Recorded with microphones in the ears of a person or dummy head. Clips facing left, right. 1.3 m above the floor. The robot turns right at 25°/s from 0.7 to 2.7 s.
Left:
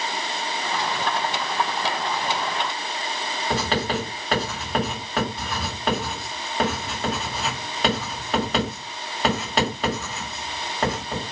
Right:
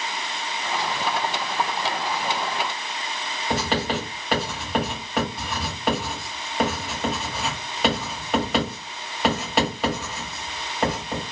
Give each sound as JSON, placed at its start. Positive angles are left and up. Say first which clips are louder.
{"t": 3.5, "sound": "writing", "louder": "even", "side_deg": -5, "distance_m": 1.7}